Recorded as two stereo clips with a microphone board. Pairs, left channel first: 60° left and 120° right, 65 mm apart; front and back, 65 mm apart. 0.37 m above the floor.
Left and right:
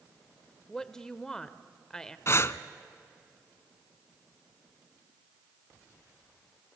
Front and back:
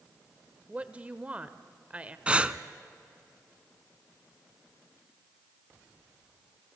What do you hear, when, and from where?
0.7 s a woman speaking: 130° left, 1.0 m
2.3 s breathing: 105° left, 0.7 m